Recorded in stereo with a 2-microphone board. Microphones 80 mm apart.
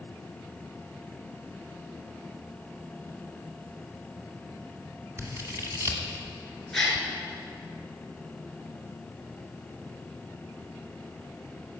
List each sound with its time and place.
5.2 s scissors: 35° right (ahead or behind), 1.8 m
6.7 s a gasp: 5° left (ahead or behind), 2 m